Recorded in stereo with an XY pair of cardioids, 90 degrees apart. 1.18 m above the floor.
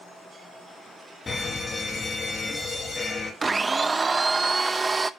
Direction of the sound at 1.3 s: 35° left.